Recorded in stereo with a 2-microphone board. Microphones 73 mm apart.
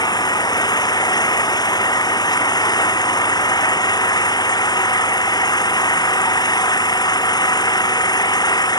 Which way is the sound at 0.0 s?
70° left (ahead or behind).